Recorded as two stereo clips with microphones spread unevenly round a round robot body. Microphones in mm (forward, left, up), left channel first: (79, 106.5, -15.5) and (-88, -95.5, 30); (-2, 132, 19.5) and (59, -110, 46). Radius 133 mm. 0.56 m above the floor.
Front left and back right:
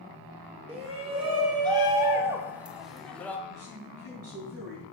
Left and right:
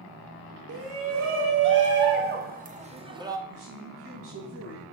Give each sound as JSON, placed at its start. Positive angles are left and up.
{"t": 0.7, "sound": "a shout", "azimuth_deg": -60, "distance_m": 2.5}
{"t": 3.5, "sound": "a man speaking", "azimuth_deg": -115, "distance_m": 3.5}